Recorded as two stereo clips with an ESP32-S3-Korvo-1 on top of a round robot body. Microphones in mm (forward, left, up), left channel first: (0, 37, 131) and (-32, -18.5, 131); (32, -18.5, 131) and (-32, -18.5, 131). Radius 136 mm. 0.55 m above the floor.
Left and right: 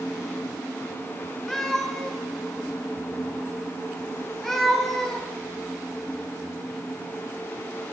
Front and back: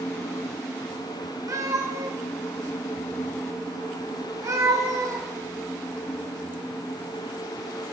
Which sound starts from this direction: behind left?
A cat meowing, at 1.5 s.